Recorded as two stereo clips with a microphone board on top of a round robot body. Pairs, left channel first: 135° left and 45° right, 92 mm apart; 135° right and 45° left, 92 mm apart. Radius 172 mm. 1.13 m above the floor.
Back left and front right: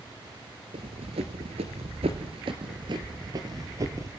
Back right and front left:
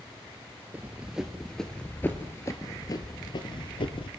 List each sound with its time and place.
0.7 s running footsteps: 30° right, 1.7 m; by 4.1 s 105° right, 2 m